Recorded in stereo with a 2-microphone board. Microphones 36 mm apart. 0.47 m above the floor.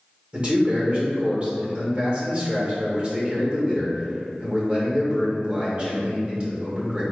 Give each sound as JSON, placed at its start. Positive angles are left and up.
{"t": 0.3, "sound": "a man speaking", "side_deg": -30, "distance_m": 1.4}